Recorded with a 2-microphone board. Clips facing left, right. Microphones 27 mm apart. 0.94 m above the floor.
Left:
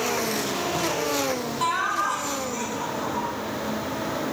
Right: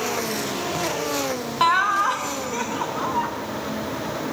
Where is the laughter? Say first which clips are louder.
Right 7 dB; 35° right (ahead or behind), 1.0 m.